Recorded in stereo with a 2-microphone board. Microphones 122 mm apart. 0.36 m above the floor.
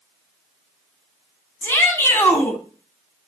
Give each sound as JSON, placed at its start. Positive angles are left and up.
{"t": 1.6, "sound": "a shout", "side_deg": 20, "distance_m": 2.5}